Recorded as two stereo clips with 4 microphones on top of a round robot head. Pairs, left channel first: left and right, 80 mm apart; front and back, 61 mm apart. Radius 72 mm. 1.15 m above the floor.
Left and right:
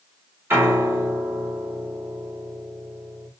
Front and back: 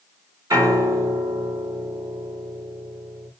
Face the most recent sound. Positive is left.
turn(degrees=-150)